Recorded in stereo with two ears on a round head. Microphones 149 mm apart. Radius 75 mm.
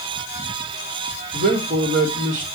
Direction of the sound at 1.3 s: 55° right (ahead or behind).